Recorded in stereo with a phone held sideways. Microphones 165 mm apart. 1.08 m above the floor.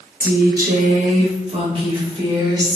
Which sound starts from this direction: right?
A woman speaking, at 0.2 s.